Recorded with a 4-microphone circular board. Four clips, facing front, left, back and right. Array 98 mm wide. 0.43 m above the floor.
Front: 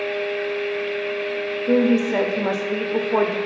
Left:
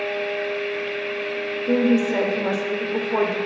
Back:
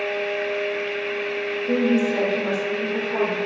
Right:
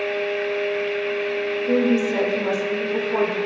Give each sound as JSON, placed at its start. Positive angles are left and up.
{"t": 1.7, "sound": "a woman speaking", "azimuth_deg": 10, "distance_m": 1.0}